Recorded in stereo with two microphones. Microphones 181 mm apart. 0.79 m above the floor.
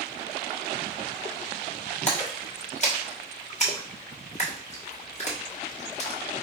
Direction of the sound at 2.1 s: 40° left (ahead or behind).